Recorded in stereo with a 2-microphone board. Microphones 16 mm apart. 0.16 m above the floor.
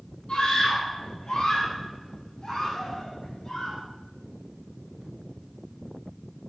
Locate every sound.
0.3 s a scream: 75° left (ahead or behind), 5 m; by 3.8 s 45° left (ahead or behind), 7 m